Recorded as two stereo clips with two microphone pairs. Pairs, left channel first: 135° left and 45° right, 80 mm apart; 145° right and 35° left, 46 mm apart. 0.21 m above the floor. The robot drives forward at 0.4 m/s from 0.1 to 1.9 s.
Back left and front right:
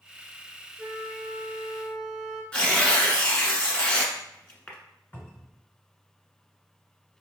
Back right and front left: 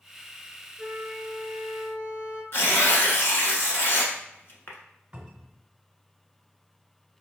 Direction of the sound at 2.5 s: 150° right.